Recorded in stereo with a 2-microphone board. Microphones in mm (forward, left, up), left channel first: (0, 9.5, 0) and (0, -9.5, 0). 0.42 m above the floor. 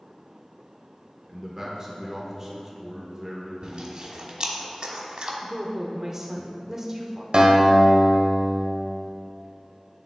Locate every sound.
1.3 s a man speaking: 20° right (ahead or behind), 1.1 m
3.6 s chewing: 45° right (ahead or behind), 1.0 m
5.4 s a woman speaking: 15° right (ahead or behind), 0.7 m
7.3 s a guitar: 50° right (ahead or behind), 1.1 m